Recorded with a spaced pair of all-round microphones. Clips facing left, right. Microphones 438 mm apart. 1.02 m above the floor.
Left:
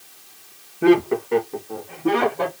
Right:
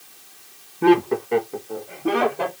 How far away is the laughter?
About 0.9 m.